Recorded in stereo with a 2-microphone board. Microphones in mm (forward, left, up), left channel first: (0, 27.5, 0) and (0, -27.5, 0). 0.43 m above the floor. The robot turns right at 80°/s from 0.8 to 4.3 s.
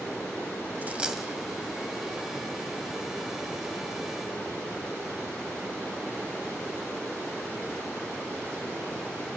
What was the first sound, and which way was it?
A dropped coin, 35° right (ahead or behind).